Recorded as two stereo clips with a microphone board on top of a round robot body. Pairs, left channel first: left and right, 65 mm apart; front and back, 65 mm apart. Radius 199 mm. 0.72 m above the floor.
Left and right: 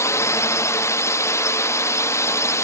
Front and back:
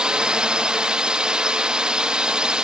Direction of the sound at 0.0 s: 110° left.